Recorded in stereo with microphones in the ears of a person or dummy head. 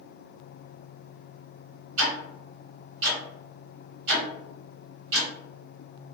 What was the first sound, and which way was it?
Ticking, 45° right (ahead or behind).